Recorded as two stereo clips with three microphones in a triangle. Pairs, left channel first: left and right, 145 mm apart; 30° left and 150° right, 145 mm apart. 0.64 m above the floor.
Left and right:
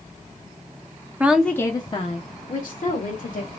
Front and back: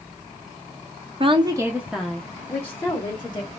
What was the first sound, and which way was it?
A woman speaking, 160° right.